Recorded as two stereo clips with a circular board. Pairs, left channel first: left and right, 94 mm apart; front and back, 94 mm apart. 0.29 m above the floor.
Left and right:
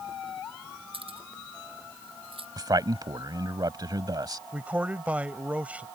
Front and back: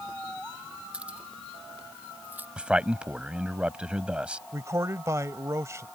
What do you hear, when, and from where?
0.9 s keys jangling: 100° right; by 2.5 s 110° right
2.6 s a man speaking: 105° right
4.5 s a man speaking: 155° right